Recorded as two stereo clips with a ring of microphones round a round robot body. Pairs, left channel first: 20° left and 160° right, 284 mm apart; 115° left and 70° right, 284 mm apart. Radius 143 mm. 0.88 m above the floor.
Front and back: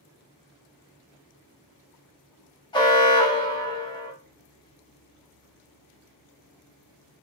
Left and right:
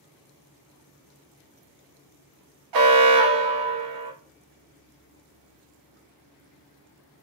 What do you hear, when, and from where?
2.7 s an alarm: 50° right, 0.7 m